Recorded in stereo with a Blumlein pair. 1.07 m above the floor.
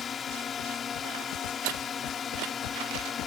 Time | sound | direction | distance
0.0 | a drone | 20° left | ?